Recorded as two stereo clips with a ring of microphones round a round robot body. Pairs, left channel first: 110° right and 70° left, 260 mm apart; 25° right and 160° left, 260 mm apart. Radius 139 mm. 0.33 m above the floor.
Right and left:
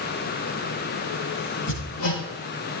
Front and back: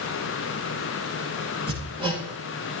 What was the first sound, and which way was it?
Hammering, 130° right.